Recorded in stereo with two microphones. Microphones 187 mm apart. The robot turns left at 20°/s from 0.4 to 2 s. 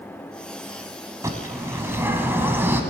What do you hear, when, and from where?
1.2 s a bird: 20° right (ahead or behind), 1.0 m; by 2.8 s 10° right (ahead or behind), 1.0 m